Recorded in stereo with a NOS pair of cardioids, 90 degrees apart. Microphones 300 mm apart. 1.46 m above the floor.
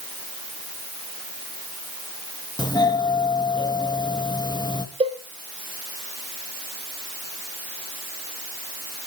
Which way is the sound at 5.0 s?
20° right.